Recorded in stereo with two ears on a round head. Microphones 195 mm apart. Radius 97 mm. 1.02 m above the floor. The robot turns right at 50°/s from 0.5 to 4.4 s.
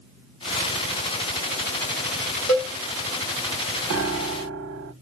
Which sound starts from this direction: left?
A cowbell, at 2.5 s.